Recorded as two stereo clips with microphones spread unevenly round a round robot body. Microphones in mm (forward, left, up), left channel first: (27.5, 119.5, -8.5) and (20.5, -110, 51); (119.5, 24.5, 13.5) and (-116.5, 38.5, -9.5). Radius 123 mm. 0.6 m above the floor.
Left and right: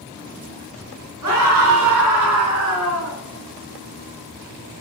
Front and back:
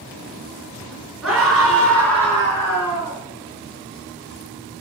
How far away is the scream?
About 6.5 m.